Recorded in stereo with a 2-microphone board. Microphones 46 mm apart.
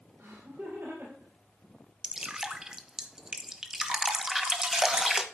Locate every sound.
0.2 s laughter: 45° right (ahead or behind), 3.5 m; by 1.3 s 55° right (ahead or behind), 3.5 m
2.0 s dripping: 15° right (ahead or behind), 0.9 m